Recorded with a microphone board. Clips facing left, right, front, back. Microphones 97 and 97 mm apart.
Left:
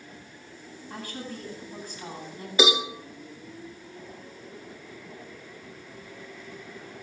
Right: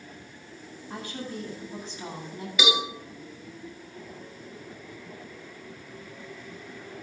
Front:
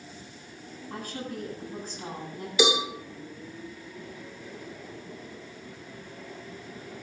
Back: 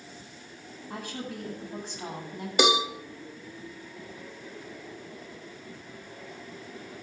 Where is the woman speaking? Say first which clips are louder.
Right 2 dB, front 1 dB; 155° right, 9 m.